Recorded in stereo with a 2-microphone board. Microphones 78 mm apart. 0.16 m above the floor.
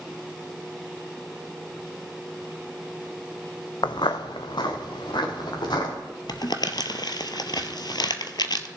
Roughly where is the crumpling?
Left.